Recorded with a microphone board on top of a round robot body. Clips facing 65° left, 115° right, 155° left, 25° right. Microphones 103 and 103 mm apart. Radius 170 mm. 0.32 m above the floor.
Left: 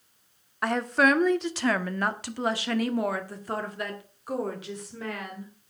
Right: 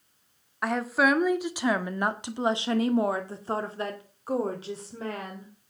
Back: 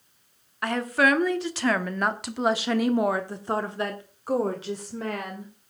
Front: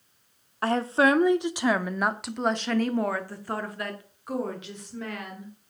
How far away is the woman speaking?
About 1.6 m.